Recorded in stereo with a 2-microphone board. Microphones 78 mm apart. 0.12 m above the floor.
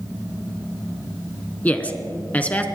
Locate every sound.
1.6 s a man speaking: 20° left (ahead or behind), 1.0 m